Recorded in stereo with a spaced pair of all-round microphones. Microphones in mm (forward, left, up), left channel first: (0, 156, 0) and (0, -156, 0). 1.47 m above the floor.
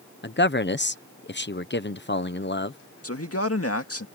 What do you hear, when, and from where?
0.2 s a man speaking: 35° left (ahead or behind)
3.0 s a man speaking: 45° left (ahead or behind)